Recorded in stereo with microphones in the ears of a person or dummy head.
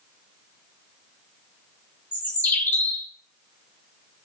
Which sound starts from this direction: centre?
A bird, at 2.1 s.